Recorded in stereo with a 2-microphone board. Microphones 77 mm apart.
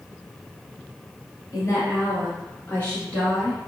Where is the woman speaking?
45° left (ahead or behind), 1.5 m; by 3.7 s centre (ahead or behind), 1.1 m.